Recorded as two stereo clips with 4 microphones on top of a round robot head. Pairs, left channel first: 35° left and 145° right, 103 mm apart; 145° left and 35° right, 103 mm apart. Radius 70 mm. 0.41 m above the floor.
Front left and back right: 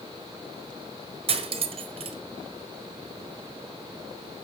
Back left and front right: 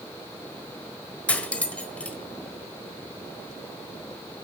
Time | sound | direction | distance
1.3 | cutlery clinking | 140° right | 1.3 m